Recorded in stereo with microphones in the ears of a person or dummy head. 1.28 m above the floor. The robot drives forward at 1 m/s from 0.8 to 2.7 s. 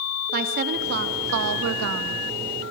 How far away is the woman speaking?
About 1.9 m.